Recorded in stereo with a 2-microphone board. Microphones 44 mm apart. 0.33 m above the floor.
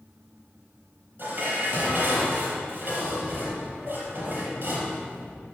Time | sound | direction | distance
1.2 | dishes clattering | 45° right (ahead or behind) | 4.5 m